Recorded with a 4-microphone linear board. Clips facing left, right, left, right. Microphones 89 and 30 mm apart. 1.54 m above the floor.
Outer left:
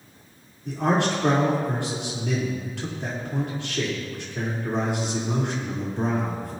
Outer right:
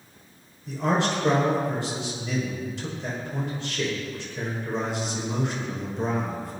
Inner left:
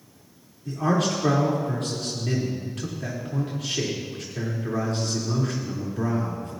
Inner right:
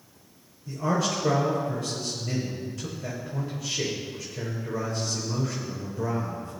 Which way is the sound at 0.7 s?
70° left (ahead or behind).